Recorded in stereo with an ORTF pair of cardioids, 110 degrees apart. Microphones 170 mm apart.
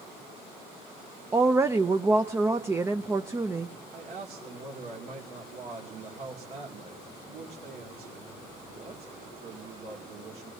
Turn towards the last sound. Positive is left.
turn(degrees=-65)